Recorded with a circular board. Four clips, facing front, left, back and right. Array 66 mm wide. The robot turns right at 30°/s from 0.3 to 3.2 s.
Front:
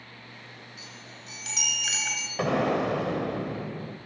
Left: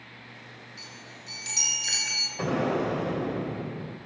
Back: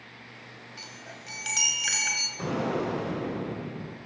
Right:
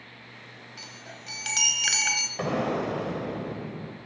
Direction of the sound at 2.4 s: 20° right.